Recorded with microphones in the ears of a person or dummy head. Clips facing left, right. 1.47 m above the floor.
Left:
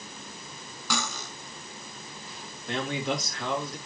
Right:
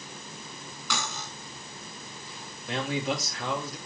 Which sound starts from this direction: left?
Cutlery clinking, at 0.9 s.